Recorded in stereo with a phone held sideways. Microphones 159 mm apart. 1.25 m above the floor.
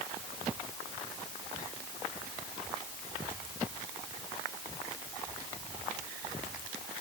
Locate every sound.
Only background noise.